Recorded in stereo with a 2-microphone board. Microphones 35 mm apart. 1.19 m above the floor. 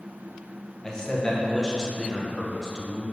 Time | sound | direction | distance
0.8 | a man speaking | 20° left (ahead or behind) | 0.7 m